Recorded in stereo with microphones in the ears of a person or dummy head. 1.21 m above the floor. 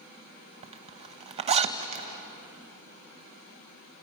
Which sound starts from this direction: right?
A zipper, at 0.6 s.